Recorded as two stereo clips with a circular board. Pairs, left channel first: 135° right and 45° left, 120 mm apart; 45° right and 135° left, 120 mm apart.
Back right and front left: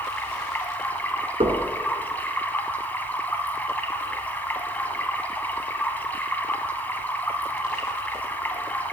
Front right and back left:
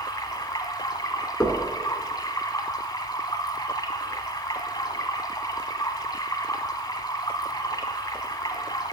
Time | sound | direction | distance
0.0 | running water | 70° right | 1.2 m
1.4 | knocking | 30° left | 2 m